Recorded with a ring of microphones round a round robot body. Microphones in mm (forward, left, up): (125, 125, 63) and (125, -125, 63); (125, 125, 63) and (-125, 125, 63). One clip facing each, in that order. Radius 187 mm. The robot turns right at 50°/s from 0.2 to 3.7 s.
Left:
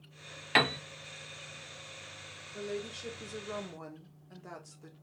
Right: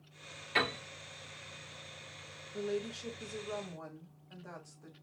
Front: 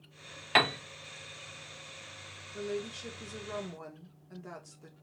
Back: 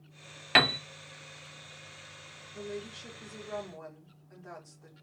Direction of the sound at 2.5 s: 15° right.